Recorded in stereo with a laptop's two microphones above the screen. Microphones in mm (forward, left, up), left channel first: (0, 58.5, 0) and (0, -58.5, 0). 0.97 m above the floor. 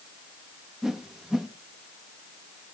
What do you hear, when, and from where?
0.8 s a whoosh: 5° right (ahead or behind), 0.9 m